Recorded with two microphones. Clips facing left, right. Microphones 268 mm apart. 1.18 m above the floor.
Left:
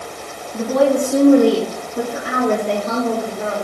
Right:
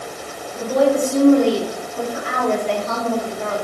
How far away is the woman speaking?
About 3 m.